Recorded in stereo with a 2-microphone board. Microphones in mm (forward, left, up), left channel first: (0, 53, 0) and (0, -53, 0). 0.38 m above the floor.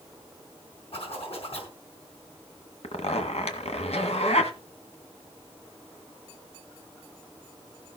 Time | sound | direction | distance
0.9 | a zipper | 60° left (ahead or behind) | 5 m
2.8 | a zipper | 75° left (ahead or behind) | 1.7 m